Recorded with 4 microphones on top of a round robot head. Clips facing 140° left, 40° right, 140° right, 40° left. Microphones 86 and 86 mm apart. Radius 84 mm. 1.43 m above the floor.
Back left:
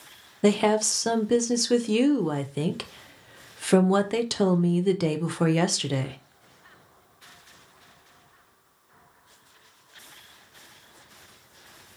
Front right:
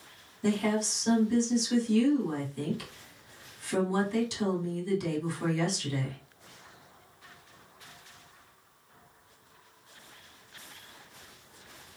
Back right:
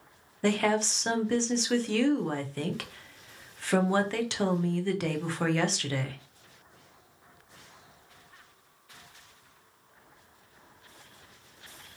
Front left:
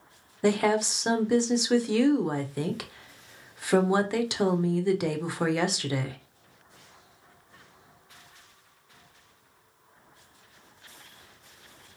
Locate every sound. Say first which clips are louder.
0.4 s a woman speaking: back left 7 dB, front left 3 dB; 120° left, 0.6 m